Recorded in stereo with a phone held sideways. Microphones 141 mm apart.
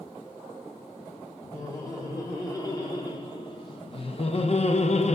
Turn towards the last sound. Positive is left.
turn(degrees=50)  # may be behind; listen again after turning